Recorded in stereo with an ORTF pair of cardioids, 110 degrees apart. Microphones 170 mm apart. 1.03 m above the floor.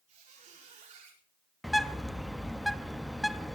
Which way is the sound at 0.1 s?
55° right.